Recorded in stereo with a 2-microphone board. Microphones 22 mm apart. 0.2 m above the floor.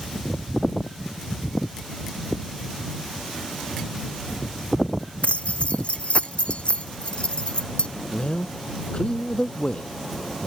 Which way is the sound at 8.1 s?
50° left (ahead or behind).